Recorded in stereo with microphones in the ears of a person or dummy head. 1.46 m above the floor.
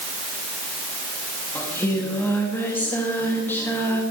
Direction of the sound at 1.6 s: 15° left (ahead or behind).